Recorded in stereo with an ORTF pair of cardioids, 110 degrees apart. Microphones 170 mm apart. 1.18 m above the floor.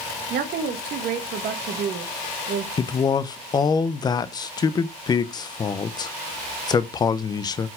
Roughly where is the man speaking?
Ahead left.